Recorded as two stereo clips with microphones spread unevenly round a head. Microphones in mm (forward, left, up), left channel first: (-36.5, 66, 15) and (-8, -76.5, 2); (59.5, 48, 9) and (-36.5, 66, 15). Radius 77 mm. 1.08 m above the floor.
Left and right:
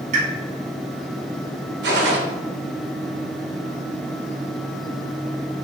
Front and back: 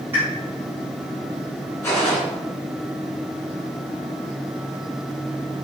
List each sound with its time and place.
0.1 s a pop: 115° right, 3 m
1.8 s a gunshot: 85° right, 1.7 m